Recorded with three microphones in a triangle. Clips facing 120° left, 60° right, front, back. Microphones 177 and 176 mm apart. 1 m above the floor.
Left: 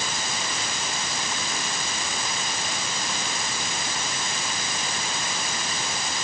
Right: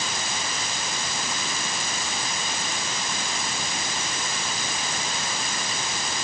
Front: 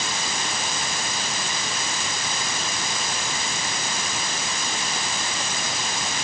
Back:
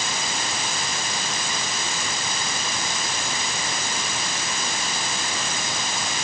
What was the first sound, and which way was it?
Only background noise.